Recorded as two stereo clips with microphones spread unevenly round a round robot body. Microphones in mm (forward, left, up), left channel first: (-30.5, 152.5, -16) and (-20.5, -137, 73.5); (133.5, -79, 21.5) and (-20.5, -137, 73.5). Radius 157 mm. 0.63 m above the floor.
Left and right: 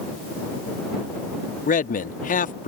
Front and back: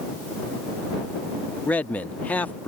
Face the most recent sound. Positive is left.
turn(degrees=75)